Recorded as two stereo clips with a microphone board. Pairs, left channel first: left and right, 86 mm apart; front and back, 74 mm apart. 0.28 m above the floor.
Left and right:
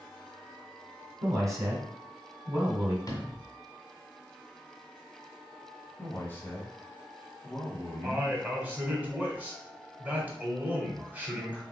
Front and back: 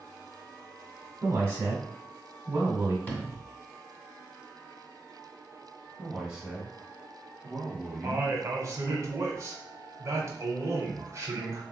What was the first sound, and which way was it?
A man speaking, 135° right.